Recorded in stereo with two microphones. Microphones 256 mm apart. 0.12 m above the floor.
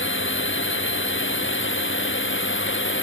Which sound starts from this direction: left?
A drone, at 0.0 s.